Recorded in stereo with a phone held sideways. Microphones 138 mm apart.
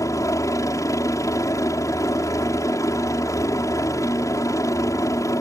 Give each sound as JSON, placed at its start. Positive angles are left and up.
{"t": 0.0, "sound": "a helicopter", "side_deg": 25}